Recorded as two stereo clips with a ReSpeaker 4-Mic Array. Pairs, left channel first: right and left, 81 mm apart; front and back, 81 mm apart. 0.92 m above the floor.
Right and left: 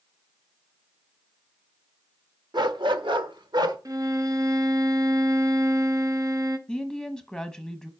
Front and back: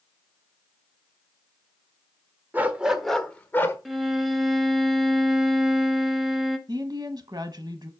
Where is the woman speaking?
Straight behind, 1.0 m.